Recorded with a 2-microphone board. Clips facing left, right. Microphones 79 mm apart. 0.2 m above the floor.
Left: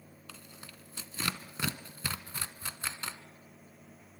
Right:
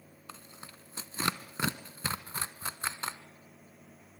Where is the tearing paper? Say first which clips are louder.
Right 3 dB; 30° right (ahead or behind), 1.2 m.